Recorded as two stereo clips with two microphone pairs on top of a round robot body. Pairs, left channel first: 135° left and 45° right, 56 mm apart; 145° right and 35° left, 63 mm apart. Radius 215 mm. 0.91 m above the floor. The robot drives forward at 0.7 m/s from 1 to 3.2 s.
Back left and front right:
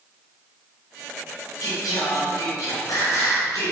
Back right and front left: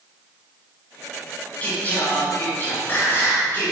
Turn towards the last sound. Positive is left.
turn(degrees=160)